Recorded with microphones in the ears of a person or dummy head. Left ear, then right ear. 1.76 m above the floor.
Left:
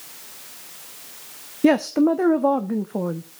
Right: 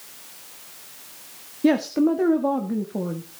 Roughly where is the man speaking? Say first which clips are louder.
Left 2 dB; left.